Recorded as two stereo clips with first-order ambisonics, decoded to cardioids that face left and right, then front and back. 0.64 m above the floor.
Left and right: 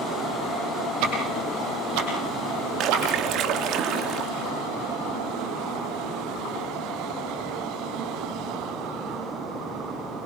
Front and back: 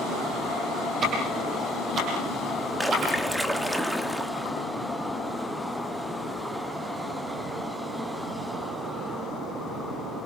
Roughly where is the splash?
Right.